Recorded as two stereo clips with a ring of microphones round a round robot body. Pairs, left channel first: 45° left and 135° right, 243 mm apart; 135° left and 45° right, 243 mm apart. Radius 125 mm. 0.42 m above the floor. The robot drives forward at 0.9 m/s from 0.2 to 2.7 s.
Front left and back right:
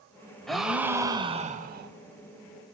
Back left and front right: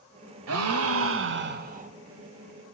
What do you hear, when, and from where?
0.5 s a gasp: 45° right, 1.7 m; by 1.9 s 100° right, 1.3 m